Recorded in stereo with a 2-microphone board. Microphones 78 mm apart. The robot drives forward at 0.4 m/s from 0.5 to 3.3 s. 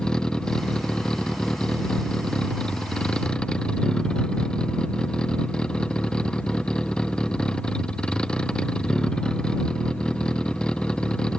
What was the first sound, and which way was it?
A vehicle, 10° left (ahead or behind).